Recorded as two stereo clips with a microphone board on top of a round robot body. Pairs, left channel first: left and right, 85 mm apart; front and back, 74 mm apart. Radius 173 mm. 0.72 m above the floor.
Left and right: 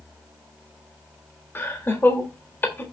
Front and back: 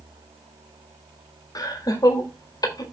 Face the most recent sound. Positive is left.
turn(degrees=25)